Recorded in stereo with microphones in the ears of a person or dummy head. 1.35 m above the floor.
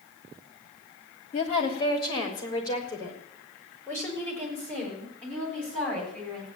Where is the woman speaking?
35° left (ahead or behind), 2.5 m; by 6.5 s 10° left (ahead or behind), 9.5 m.